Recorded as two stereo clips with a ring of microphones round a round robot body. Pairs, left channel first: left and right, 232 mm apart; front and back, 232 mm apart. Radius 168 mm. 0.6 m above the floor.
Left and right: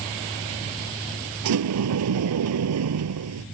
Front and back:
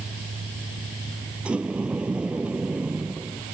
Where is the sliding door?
95° right.